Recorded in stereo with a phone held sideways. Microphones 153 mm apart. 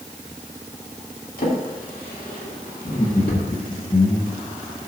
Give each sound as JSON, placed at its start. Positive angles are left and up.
{"t": 1.4, "sound": "a drawer", "side_deg": 70, "distance_m": 2.0}
{"t": 2.9, "sound": "laughter", "side_deg": 35, "distance_m": 1.5}